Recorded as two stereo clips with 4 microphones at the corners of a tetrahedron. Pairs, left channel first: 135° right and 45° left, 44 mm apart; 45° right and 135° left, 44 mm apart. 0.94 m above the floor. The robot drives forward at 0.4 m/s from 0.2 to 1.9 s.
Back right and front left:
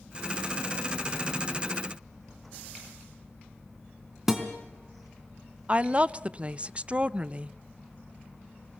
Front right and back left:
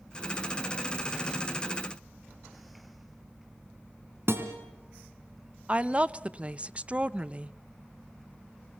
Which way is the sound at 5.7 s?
90° left.